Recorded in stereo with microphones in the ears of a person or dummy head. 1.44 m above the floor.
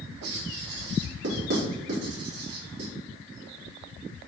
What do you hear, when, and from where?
0.2 s writing: 70° right (ahead or behind), 4 m